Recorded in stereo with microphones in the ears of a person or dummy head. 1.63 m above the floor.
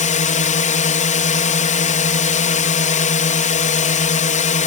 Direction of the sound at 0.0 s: 40° left (ahead or behind).